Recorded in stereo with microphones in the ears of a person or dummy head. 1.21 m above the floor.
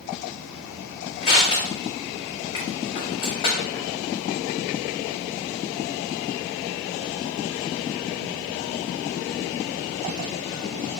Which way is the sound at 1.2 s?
25° left (ahead or behind).